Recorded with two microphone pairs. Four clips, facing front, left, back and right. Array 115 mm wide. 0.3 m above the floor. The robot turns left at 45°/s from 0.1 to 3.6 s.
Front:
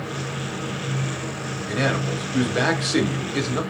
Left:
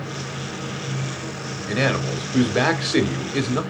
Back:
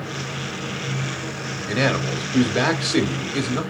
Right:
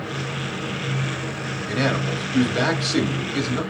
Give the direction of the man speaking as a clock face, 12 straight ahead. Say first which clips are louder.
Left 1 dB, back 2 dB; 7 o'clock.